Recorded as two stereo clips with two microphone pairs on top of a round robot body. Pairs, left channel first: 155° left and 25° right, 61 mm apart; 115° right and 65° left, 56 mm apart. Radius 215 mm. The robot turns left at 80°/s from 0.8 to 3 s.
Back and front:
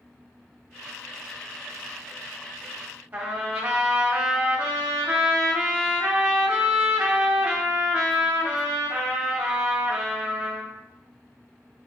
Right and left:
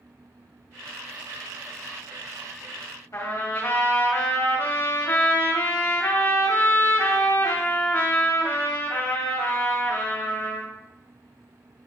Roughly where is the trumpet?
Right.